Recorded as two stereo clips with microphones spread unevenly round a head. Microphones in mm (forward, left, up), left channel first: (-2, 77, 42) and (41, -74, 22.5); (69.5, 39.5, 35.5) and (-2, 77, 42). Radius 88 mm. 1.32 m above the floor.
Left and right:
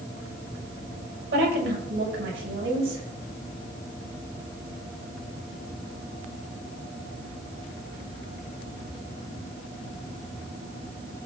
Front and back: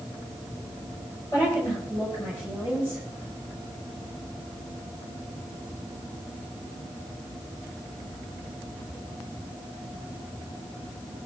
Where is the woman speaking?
100° right, 7 m.